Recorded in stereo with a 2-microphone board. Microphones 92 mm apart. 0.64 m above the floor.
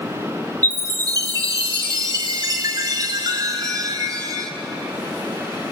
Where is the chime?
45° right (ahead or behind), 1.9 m.